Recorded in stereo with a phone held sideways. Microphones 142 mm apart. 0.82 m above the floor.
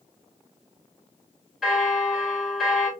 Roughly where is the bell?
Centre.